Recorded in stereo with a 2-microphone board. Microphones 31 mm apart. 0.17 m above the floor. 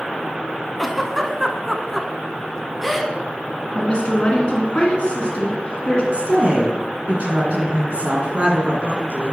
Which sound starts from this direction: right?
A woman speaking, at 6.1 s.